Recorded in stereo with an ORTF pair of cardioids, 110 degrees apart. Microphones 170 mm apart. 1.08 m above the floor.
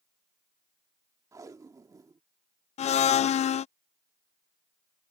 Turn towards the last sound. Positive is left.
turn(degrees=45)